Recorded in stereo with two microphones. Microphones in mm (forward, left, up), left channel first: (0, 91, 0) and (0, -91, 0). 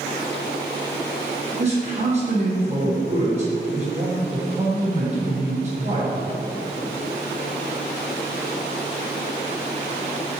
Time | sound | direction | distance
1.6 | a man speaking | 35° right (ahead or behind) | 1.3 m